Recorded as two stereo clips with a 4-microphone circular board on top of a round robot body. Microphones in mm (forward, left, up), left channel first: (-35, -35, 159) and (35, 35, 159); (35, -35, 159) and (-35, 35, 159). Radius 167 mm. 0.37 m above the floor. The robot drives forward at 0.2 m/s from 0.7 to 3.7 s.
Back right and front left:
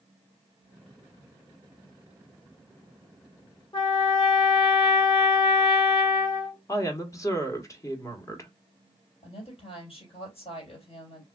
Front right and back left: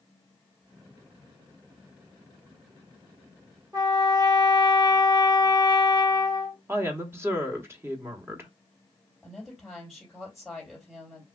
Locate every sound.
3.7 s a trumpet: 175° right, 2 m
6.7 s a woman speaking: 175° right, 1.3 m
9.2 s a woman speaking: 140° right, 2.5 m